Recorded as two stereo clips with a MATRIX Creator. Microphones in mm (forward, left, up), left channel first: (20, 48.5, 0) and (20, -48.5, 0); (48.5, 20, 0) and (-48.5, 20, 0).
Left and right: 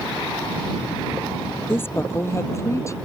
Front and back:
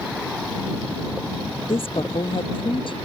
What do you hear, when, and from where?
1.7 s a woman speaking: 25° left; by 3.0 s 30° left